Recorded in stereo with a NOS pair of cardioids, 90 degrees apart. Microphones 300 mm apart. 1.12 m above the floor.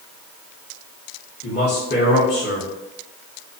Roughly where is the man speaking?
Ahead left.